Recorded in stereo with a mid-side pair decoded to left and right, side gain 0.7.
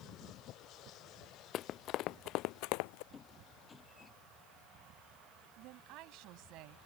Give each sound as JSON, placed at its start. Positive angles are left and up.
{"t": 1.5, "sound": "running footsteps", "azimuth_deg": 50}
{"t": 3.1, "sound": "a squeak", "azimuth_deg": 25}
{"t": 5.6, "sound": "a woman speaking", "azimuth_deg": -60}